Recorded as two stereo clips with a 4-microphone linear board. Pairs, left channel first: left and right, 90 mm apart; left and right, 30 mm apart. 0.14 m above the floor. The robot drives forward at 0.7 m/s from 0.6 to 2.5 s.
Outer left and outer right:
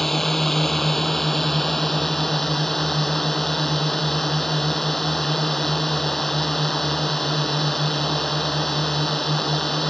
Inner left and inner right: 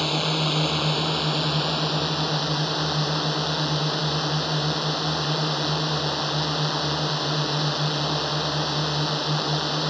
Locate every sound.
0.0 s a drone: centre (ahead or behind)